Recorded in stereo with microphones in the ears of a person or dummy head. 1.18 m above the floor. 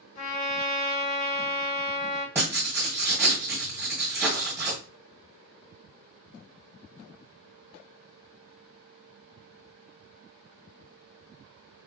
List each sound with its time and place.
0.1 s a trumpet: 50° left (ahead or behind), 2.5 m
2.4 s writing: 10° right (ahead or behind), 1.6 m